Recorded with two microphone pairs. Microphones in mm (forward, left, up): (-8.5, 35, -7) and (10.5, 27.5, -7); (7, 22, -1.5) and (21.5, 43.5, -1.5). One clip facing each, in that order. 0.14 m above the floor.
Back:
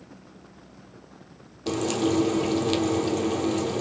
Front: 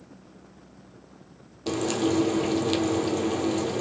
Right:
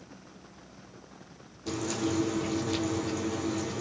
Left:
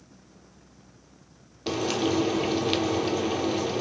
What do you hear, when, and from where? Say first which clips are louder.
1.7 s frying: back 1 dB, left 5 dB; 75° left, 1.1 m